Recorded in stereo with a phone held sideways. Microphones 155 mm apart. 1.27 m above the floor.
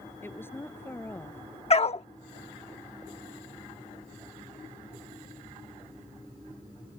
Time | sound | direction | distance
0.2 | a woman speaking | 15° left (ahead or behind) | ?
1.7 | a dog barking | 45° left (ahead or behind) | ?